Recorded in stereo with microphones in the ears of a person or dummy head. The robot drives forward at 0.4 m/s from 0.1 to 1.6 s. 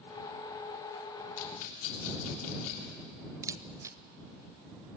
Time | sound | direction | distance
1.4 | a rattle | 75° left (ahead or behind) | 3 m
3.4 | a camera shutter | 15° right (ahead or behind) | 1.0 m